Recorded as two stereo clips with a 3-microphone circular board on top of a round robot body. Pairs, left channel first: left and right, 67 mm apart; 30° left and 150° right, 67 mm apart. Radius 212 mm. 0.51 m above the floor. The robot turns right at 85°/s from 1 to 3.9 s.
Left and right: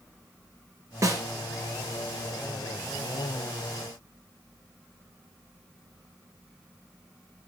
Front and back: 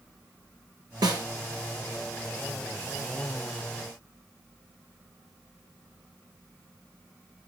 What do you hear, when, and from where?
1.0 s a snare drum: 135° right, 3 m; by 1.2 s 115° right, 3 m